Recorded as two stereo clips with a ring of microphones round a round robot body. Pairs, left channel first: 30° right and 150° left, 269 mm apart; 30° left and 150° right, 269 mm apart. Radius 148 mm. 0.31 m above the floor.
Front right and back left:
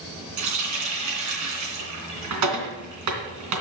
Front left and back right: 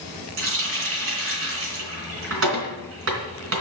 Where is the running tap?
170° left, 3 m.